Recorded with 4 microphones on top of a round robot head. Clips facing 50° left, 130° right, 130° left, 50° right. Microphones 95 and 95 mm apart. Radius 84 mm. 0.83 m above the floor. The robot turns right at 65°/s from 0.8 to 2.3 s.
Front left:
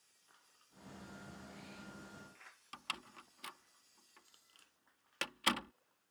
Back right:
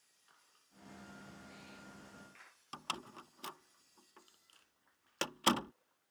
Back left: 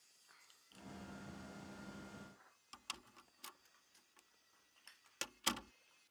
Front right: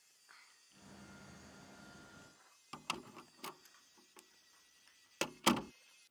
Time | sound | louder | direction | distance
2.7 | a door slam | back right 4 dB, front right 10 dB | 75° right | ?